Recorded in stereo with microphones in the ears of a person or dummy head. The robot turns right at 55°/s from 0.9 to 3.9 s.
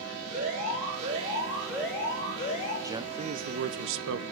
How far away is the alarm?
About 5.5 m.